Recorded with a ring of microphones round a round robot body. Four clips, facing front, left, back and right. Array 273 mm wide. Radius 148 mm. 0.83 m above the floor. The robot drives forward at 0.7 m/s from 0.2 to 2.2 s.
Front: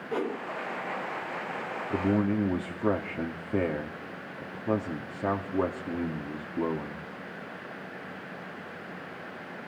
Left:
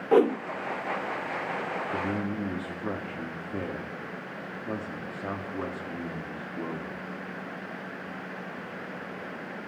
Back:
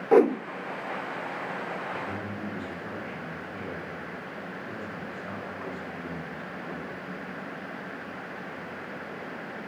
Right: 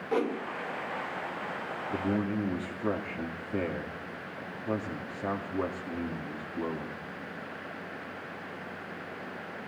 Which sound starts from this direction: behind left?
A whoosh, at 0.1 s.